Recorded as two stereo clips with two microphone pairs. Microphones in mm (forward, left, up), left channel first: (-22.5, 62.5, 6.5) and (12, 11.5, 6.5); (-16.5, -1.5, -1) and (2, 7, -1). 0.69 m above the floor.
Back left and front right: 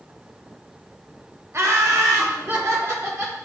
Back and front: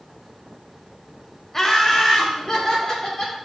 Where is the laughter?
85° right, 0.7 m.